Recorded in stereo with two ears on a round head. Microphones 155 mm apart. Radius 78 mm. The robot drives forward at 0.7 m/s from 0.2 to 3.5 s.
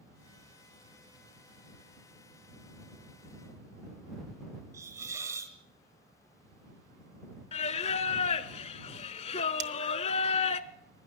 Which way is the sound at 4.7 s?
15° right (ahead or behind).